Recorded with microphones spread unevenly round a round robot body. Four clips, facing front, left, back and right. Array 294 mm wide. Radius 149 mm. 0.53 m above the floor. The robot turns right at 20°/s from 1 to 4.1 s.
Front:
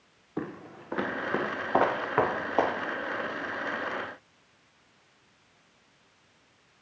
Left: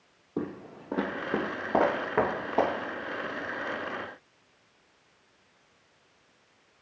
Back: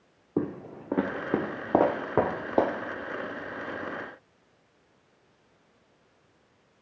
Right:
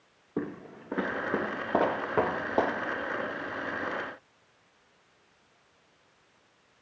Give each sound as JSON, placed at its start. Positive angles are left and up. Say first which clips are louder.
{"t": 0.4, "sound": "footsteps", "louder": "even, back 6 dB", "azimuth_deg": 180, "distance_m": 1.4}